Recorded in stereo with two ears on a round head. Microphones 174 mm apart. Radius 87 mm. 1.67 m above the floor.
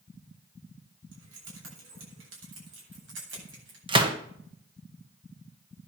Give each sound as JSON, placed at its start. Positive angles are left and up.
{"t": 1.1, "sound": "keys jangling", "side_deg": -80, "distance_m": 7.5}
{"t": 3.9, "sound": "a gunshot", "side_deg": -25, "distance_m": 1.7}